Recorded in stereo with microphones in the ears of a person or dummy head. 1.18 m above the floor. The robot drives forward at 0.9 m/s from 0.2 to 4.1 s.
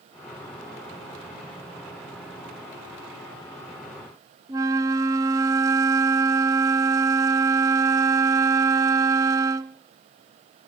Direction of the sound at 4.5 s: 15° right (ahead or behind).